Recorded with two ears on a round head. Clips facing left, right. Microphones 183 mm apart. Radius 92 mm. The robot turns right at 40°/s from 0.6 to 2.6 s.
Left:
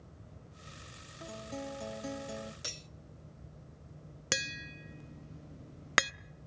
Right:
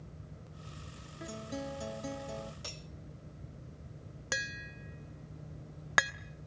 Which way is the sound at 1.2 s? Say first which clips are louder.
Right 2 dB; 30° right.